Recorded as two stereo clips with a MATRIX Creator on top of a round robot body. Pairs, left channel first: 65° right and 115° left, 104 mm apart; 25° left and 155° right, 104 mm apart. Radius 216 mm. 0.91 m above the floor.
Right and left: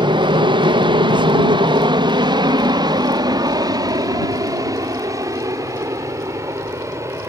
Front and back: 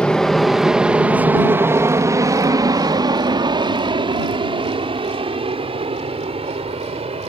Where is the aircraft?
105° left; by 7.3 s 175° left.